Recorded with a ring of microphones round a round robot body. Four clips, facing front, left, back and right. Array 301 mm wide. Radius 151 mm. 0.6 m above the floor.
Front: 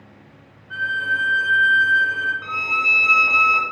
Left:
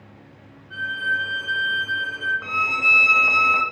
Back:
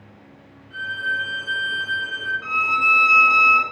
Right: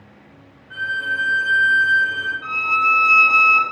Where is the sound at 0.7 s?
20° right, 4.5 m.